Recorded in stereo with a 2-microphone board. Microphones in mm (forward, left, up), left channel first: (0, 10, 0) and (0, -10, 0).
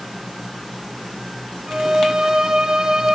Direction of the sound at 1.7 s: 30° right (ahead or behind).